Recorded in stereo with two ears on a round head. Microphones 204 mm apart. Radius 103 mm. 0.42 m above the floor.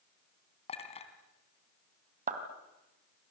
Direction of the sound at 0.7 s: 25° left (ahead or behind).